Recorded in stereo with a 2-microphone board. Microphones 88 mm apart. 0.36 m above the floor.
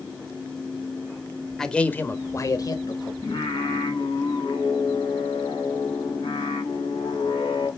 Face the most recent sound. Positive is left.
turn(degrees=55)  # may be behind; listen again after turning